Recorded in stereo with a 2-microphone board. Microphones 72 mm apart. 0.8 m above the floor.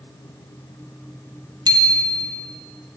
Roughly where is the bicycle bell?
Right.